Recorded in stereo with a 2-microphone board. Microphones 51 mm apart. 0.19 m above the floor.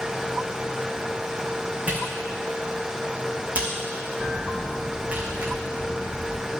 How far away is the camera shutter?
About 2.5 m.